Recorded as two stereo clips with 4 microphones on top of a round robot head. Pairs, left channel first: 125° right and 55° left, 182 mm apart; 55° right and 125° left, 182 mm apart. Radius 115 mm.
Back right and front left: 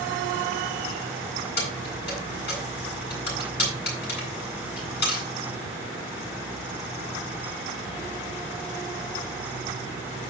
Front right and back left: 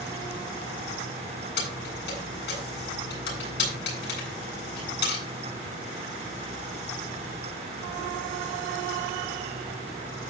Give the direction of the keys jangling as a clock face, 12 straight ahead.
3 o'clock.